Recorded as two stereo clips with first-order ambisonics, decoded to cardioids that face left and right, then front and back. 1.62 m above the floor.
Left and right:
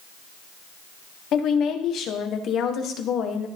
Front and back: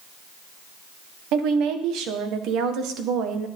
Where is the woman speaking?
140° left, 1.4 m.